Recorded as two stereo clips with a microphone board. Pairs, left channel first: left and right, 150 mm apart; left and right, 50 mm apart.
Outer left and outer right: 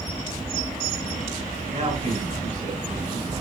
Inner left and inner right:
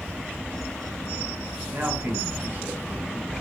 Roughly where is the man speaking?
Right.